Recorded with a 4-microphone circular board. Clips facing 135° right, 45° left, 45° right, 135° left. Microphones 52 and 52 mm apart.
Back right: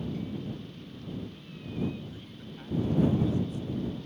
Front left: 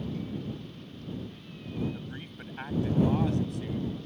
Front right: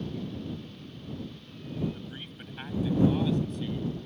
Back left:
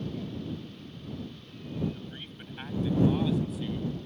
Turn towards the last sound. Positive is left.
turn(degrees=50)